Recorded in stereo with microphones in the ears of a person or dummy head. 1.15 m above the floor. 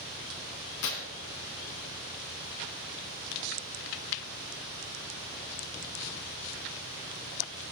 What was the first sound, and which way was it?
Tearing paper, 65° left (ahead or behind).